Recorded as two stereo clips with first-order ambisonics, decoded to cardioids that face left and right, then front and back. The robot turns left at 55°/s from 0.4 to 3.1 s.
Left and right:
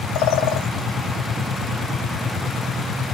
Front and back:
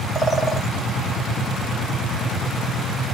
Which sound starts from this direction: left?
A bird, at 0.1 s.